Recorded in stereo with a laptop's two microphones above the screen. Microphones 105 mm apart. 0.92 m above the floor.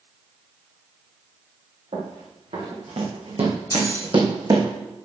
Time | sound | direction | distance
1.9 | running footsteps | 75° right (ahead or behind) | 4.5 m
3.7 | keys jangling | 25° left (ahead or behind) | 2.5 m